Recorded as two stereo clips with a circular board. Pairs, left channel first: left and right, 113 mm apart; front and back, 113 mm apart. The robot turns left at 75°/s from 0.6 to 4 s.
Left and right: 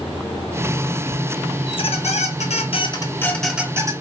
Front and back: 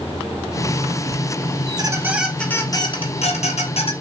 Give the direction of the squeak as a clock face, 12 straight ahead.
7 o'clock.